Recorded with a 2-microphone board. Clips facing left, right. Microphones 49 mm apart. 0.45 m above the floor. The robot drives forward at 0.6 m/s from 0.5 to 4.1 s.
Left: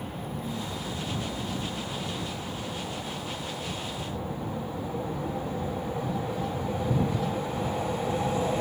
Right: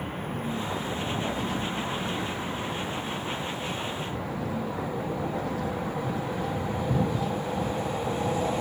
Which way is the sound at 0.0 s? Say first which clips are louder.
Right 3 dB; 35° right (ahead or behind).